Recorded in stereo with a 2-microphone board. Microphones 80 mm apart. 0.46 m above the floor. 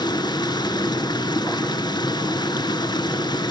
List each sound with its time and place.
0.0 s running water: 60° left (ahead or behind), 1.2 m